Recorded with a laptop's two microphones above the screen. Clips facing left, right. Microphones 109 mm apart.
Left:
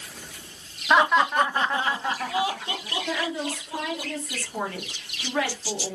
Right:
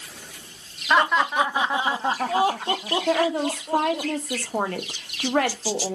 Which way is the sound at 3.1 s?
55° right (ahead or behind).